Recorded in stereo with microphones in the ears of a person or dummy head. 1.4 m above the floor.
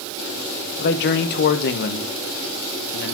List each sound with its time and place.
0.8 s a man speaking: 55° left (ahead or behind), 0.8 m